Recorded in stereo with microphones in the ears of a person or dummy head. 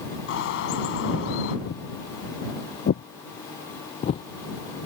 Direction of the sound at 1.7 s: 55° left (ahead or behind).